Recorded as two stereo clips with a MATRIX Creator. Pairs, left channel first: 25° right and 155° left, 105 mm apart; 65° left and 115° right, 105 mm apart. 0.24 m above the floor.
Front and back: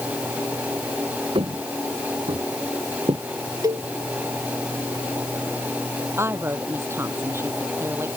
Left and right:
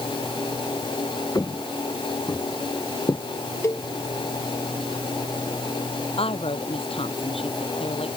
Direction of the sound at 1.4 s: 120° left.